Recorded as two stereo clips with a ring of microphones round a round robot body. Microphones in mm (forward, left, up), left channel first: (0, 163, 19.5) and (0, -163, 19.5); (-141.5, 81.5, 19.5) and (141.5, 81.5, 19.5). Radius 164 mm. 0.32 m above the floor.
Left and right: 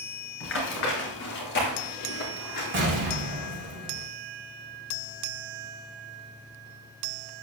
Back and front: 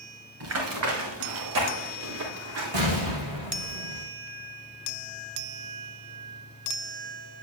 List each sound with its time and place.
0.4 s running footsteps: 35° left, 7 m; by 3.2 s 25° left, 5.5 m
2.7 s an explosion: 30° right, 8 m